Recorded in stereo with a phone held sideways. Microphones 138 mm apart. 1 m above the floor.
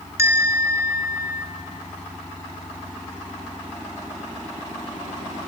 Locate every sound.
0.2 s a bell: 20° right (ahead or behind), 1.9 m